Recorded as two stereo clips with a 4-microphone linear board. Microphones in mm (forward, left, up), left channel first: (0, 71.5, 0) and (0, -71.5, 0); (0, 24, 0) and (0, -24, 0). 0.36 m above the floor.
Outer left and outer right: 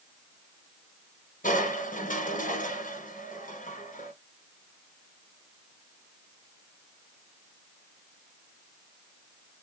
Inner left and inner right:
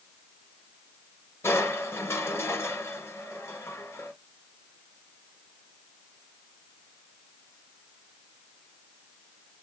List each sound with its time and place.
1.4 s crushing: 70° left (ahead or behind), 2.0 m